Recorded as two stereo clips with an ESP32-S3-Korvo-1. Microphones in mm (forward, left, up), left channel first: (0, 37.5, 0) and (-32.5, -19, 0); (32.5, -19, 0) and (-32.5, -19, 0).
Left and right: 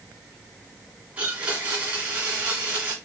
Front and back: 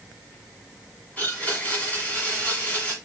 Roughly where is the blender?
Ahead right.